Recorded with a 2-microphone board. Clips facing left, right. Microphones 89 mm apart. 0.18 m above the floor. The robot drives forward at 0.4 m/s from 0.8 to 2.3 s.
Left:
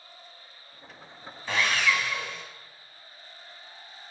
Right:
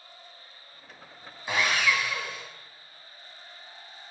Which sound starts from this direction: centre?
Sawing, at 1.5 s.